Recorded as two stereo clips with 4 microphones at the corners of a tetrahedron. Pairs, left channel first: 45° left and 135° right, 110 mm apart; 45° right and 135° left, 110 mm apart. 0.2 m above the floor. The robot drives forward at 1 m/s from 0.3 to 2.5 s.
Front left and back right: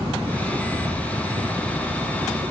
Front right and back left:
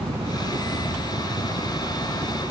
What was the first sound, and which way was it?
A helicopter, 165° left.